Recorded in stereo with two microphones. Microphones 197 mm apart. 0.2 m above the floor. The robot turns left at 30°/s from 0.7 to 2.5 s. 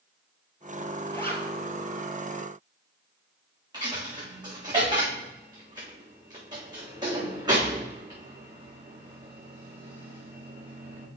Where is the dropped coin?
20° right (ahead or behind), 3.5 m.